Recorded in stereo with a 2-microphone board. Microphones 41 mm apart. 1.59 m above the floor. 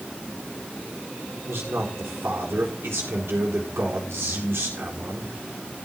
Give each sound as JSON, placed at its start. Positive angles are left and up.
{"t": 1.5, "sound": "a man speaking", "side_deg": -85, "distance_m": 4.0}